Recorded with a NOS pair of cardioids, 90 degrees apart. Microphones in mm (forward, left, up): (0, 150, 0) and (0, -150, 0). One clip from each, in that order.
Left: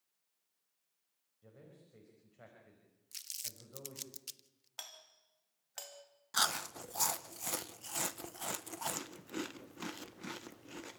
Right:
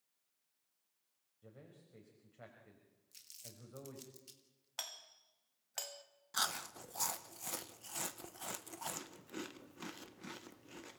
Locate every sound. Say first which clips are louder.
1.4 s a man speaking: even; 5° right, 5.5 m
3.1 s crumpling: left 10 dB; 65° left, 1.1 m
4.8 s a doorbell: right 3 dB; 20° right, 2 m
6.3 s chewing: left 5 dB; 25° left, 0.8 m